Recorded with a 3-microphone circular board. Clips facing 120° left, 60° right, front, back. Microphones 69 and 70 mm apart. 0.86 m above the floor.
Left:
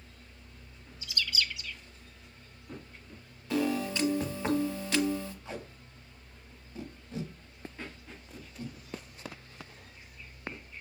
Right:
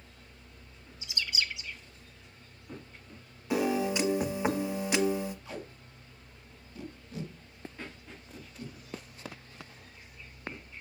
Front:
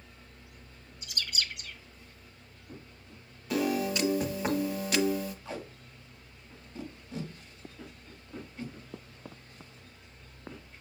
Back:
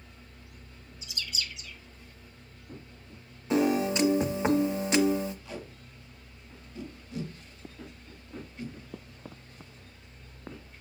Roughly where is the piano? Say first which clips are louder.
Right 2 dB, back 4 dB; behind right.